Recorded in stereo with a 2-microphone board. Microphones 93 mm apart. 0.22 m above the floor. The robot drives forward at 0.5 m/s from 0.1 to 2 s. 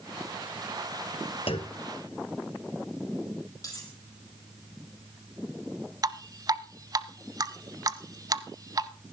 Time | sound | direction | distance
1.5 | a clunk | 75° left (ahead or behind) | 0.8 m
3.6 | cutlery clinking | 35° left (ahead or behind) | 4.5 m
6.0 | dripping | 40° right (ahead or behind) | 0.7 m